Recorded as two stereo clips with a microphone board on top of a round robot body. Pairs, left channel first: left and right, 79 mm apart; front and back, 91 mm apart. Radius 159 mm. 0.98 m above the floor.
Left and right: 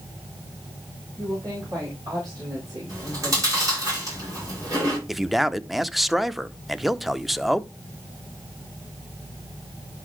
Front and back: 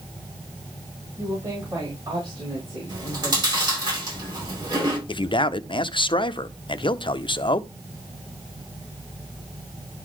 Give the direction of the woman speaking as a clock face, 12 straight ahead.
4 o'clock.